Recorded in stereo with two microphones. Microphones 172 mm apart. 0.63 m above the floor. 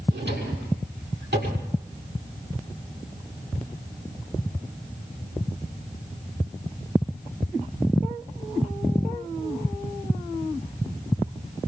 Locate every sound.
0.1 s a drawer: 85° right, 6.5 m